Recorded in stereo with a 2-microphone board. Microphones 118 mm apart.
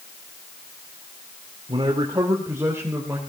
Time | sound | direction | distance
1.7 | a man speaking | 45° right (ahead or behind) | 2.5 m